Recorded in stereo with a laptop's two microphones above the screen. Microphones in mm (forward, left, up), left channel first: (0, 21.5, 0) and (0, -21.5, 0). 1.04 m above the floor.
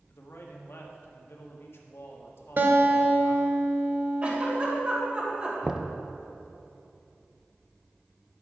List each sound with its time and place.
0.1 s a man speaking: 65° left (ahead or behind), 1.4 m
2.6 s a guitar: 50° right (ahead or behind), 1.2 m
4.2 s a giggle: 30° right (ahead or behind), 3 m
5.6 s knocking: 15° right (ahead or behind), 0.6 m